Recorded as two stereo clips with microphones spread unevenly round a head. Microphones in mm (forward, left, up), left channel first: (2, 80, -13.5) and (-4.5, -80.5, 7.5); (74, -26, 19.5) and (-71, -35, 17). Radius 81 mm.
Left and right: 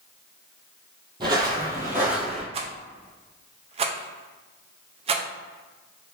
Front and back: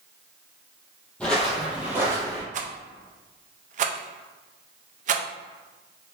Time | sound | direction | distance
1.2 | footsteps | 75° right | 1.3 m
2.5 | a rattle | 140° right | 0.5 m